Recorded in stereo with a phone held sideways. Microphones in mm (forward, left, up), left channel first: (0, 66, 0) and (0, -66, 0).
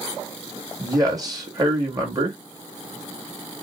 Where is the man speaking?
30° right (ahead or behind), 2 m.